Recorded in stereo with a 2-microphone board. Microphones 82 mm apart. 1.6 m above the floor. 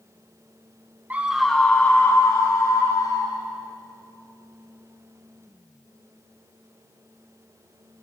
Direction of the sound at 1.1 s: 20° right (ahead or behind).